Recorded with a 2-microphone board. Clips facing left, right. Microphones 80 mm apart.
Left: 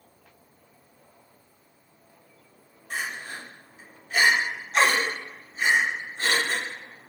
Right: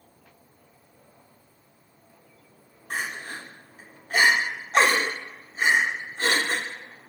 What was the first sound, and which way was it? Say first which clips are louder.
Crying: right 1 dB; 45° right (ahead or behind).